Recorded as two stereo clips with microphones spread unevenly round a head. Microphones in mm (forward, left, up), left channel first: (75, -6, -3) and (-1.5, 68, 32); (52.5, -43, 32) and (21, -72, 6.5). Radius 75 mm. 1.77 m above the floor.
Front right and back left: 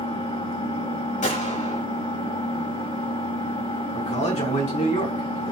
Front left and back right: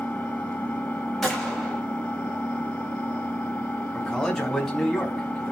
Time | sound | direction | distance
0.0 | an engine running | 5° right | 3.5 m
1.2 | a gunshot | 35° right | 5.5 m
3.9 | a man speaking | 35° right | 3.5 m